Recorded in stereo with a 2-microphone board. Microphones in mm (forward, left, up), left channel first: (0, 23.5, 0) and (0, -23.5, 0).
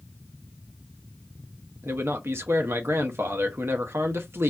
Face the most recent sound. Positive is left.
turn(degrees=-60)  # may be behind; listen again after turning